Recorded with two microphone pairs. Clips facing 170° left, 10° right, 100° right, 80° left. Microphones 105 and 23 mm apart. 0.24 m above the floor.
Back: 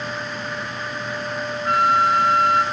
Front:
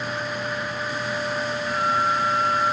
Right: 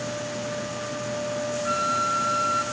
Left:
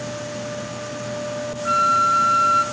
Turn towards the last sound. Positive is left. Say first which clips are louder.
# back 7 dB, left 9 dB
turn(degrees=150)